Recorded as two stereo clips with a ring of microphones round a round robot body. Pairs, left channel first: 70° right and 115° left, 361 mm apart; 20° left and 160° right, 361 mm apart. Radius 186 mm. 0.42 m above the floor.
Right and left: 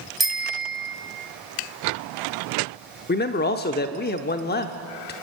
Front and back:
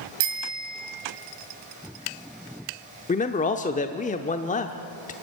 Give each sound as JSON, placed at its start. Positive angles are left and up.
{"t": 0.2, "sound": "a bicycle bell", "azimuth_deg": -160, "distance_m": 2.5}
{"t": 3.1, "sound": "a man speaking", "azimuth_deg": -30, "distance_m": 0.8}